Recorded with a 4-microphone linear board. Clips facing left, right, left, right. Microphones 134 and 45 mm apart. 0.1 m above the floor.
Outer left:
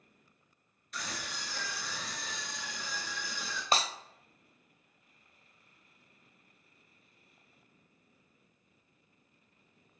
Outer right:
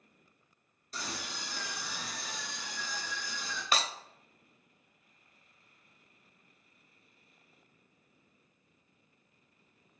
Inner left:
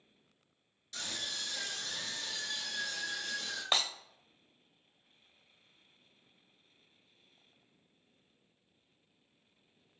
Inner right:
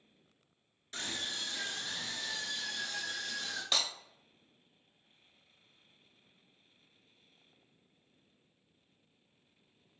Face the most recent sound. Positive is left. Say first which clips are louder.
# outer left 2 dB, inner left 2 dB
turn(degrees=30)  # may be behind; listen again after turning